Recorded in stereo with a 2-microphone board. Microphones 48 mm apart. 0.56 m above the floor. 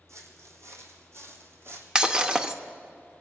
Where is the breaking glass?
15° right (ahead or behind), 0.6 m.